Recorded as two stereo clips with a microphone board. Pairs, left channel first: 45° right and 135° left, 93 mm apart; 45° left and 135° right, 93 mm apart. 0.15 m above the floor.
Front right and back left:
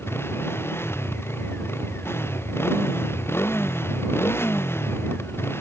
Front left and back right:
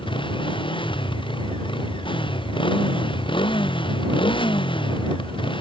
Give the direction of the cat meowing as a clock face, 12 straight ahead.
I don't hear a cat meowing.